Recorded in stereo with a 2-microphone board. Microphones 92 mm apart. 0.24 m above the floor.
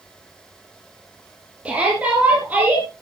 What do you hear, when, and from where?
1.6 s a shout: 15° right (ahead or behind), 6 m; by 2.9 s 20° right (ahead or behind), 5 m